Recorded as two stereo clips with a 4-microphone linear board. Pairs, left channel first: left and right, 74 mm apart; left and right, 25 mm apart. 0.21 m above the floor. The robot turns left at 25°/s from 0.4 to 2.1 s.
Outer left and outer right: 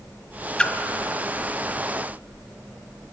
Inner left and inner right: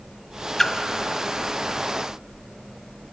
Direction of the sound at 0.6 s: 15° left (ahead or behind).